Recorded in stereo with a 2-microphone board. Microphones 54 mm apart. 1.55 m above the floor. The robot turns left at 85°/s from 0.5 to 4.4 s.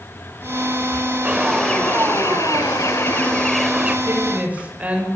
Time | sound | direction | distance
1.2 | a bird | 160° right | 3.5 m
4.1 | a woman speaking | 55° right (ahead or behind) | 7.5 m